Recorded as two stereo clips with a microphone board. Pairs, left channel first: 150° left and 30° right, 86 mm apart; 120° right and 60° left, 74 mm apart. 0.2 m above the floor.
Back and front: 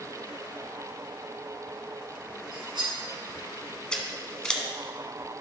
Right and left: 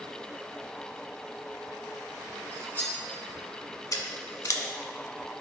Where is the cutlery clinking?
60° right, 2.5 m.